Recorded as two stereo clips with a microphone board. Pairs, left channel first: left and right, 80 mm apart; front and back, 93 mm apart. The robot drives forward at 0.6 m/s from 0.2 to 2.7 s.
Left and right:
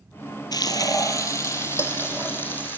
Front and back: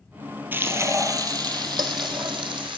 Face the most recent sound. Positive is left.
turn(degrees=155)